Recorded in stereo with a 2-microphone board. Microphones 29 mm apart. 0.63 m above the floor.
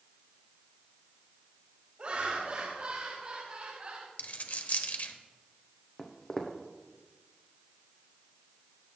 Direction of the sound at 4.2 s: 55° left (ahead or behind).